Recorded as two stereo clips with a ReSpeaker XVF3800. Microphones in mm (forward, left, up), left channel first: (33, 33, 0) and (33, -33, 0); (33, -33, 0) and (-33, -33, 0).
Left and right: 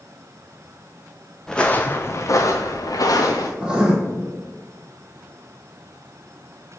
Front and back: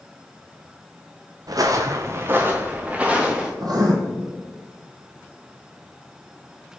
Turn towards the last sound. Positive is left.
turn(degrees=-165)